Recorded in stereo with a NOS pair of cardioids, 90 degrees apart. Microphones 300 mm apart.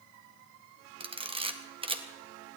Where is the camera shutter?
20° right, 1.6 m.